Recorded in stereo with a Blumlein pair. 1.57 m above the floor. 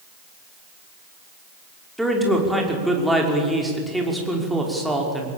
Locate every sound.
2.0 s a man speaking: straight ahead, 5.5 m